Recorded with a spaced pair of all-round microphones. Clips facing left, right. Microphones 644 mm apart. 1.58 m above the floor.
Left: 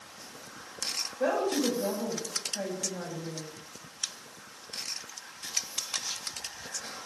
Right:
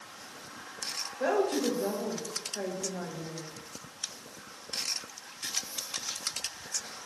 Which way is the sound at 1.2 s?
30° left (ahead or behind).